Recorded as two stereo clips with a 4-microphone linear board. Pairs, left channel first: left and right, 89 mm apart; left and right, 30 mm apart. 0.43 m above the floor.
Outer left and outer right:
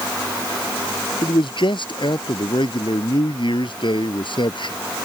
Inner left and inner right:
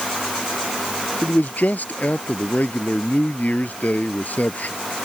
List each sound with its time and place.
1.2 s a man speaking: 60° left (ahead or behind)